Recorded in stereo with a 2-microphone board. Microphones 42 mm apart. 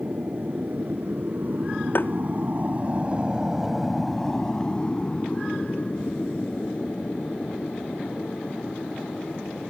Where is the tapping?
50° left (ahead or behind).